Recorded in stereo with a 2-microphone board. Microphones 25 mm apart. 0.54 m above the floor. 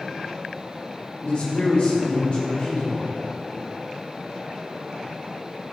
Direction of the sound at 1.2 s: 50° left (ahead or behind).